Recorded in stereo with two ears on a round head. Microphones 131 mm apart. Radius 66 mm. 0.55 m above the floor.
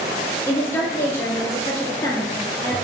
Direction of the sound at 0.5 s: 15° left (ahead or behind).